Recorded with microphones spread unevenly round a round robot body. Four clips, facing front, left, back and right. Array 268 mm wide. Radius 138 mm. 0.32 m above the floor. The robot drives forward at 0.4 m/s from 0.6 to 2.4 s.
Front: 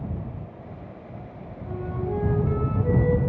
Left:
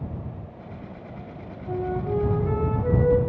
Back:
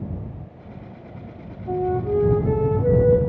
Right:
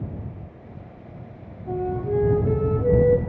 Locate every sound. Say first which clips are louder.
1.7 s a flute: right 2 dB, back 8 dB; 155° right, 4.5 m; by 3.2 s 160° right, 4.5 m